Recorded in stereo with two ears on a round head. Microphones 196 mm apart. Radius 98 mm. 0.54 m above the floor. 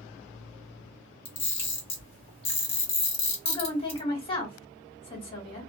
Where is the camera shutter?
25° left (ahead or behind), 1.4 m.